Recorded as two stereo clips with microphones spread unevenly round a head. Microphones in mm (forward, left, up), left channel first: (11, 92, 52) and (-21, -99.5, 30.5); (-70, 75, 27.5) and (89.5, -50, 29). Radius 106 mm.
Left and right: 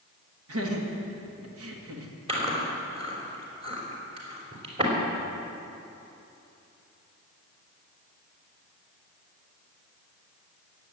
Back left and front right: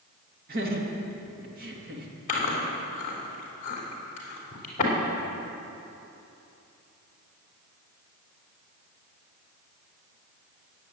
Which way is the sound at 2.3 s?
165° right.